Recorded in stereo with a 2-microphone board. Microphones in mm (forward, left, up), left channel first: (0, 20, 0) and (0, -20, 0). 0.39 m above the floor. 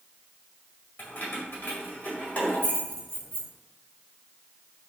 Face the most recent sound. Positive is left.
turn(degrees=20)  # may be behind; listen again after turning